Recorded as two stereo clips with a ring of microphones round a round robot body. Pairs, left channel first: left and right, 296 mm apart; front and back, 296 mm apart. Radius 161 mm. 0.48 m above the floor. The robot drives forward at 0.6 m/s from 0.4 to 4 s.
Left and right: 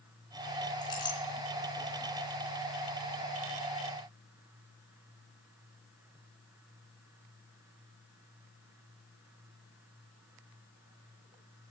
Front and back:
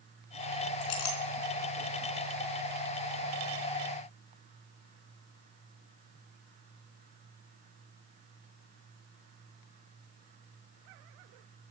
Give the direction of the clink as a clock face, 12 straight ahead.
12 o'clock.